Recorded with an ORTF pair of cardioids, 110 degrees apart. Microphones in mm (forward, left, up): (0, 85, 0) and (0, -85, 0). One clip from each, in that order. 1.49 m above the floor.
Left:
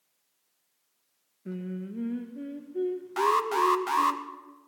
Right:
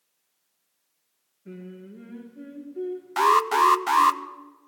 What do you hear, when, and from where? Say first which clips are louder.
1.4 s singing: left 4 dB; 40° left, 1.9 m
3.2 s an alarm: right 6 dB; 30° right, 0.7 m